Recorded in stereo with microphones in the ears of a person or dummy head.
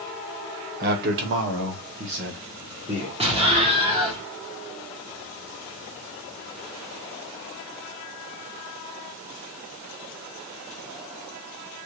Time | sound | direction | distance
0.8 | a man speaking | 55° right (ahead or behind) | 1.1 m
3.2 | an explosion | 25° right (ahead or behind) | 1.1 m